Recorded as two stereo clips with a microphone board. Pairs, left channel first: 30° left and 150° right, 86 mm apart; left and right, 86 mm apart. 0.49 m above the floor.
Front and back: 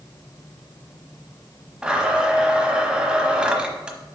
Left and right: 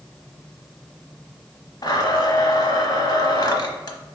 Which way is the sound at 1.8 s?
130° left.